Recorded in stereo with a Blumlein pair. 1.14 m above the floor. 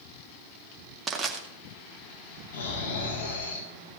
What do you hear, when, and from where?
1.1 s crushing: 20° right, 2.0 m
2.5 s snoring: 65° left, 9 m